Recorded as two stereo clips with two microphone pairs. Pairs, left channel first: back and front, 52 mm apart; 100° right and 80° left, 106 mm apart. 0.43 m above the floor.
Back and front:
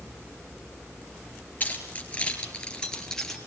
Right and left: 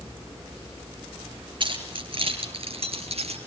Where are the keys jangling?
120° left, 5 m; by 3.4 s 95° left, 5 m.